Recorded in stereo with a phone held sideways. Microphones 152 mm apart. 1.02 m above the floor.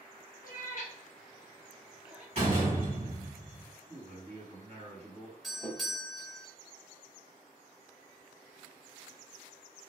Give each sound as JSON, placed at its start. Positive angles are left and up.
{"t": 0.4, "sound": "a cat meowing", "side_deg": 65, "distance_m": 0.7}
{"t": 2.4, "sound": "a door slam", "side_deg": -45, "distance_m": 1.5}
{"t": 3.9, "sound": "a man speaking", "side_deg": -45, "distance_m": 1.4}
{"t": 5.4, "sound": "a doorbell", "side_deg": 0, "distance_m": 0.9}